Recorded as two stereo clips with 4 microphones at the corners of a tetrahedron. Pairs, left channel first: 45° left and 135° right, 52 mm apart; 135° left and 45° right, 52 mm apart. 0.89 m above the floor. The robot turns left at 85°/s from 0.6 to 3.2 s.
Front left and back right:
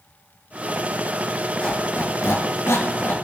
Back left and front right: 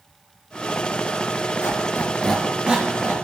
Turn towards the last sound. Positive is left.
turn(degrees=-15)